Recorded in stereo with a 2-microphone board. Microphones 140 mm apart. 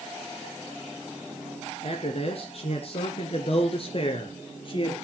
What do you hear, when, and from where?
1.8 s a man speaking: 50° left (ahead or behind), 2.5 m; by 4.9 s 40° left (ahead or behind), 3 m